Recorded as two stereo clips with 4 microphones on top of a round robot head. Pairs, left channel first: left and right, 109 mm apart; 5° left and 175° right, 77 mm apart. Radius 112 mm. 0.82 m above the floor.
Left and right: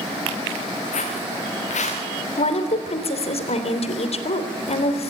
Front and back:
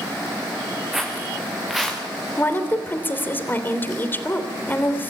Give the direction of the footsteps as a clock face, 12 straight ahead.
9 o'clock.